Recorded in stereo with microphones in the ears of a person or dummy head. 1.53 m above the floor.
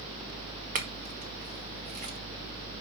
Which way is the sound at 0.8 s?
40° right (ahead or behind).